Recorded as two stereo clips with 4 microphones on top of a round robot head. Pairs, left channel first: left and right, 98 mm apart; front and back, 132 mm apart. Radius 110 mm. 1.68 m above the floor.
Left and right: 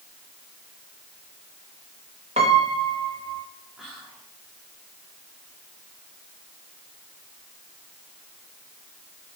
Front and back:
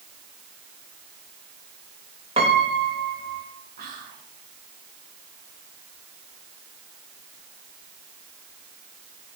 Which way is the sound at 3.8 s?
175° right.